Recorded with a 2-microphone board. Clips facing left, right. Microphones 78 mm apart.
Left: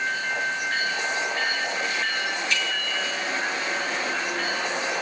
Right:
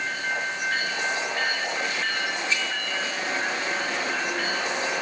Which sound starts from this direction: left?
A bicycle bell, at 2.5 s.